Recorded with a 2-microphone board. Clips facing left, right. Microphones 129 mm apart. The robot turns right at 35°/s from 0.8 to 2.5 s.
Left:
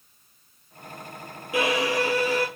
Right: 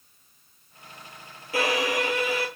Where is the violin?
20° left, 1.6 m; by 2.5 s 55° left, 1.6 m.